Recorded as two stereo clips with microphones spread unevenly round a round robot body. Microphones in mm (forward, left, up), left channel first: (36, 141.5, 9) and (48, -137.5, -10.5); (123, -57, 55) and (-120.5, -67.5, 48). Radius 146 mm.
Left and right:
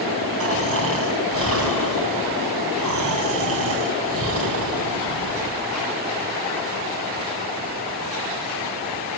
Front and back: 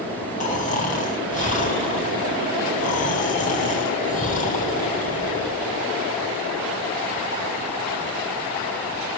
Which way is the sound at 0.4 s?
55° right.